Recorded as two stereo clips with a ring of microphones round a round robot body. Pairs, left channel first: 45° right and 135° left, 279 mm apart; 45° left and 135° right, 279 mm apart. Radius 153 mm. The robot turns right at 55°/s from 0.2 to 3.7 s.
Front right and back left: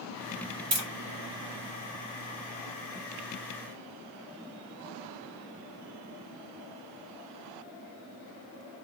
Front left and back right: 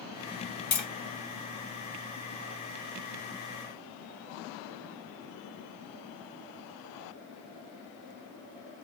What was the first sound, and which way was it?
Tapping, 100° left.